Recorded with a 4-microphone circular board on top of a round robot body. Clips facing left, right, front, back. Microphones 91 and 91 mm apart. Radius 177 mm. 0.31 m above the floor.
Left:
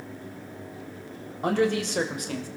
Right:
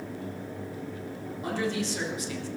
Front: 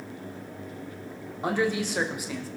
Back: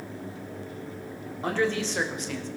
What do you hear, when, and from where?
1.4 s a man speaking: 75° left, 3 m; by 2.5 s 80° left, 2 m